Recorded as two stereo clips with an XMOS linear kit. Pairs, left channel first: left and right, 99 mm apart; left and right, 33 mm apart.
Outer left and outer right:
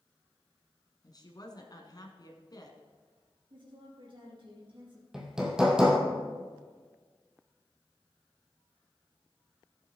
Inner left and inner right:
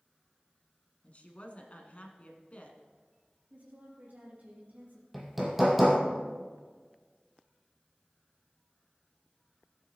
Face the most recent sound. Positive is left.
turn(degrees=-5)  # may be behind; listen again after turning